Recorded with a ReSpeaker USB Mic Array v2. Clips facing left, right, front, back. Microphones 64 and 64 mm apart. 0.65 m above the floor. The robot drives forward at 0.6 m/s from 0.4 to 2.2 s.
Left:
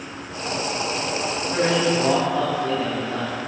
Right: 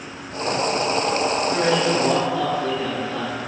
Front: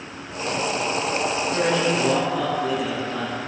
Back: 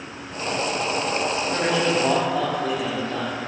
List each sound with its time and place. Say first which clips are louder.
1.5 s a man speaking: left 2 dB, even; 170° left, 3.5 m